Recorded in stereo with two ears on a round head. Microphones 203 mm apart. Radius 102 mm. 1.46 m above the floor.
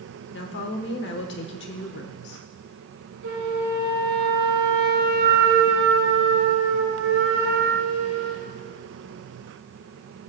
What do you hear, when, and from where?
0.3 s a woman speaking: 50° left (ahead or behind), 1.1 m
3.2 s a flute: 50° right (ahead or behind), 2.5 m